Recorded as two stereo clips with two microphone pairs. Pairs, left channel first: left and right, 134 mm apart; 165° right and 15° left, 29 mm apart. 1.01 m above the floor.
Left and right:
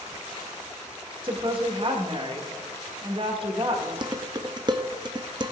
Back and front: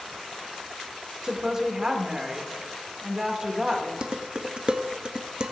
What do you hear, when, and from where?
1.2 s a woman speaking: 45° right, 1.7 m
4.0 s dishes clattering: 35° right, 0.6 m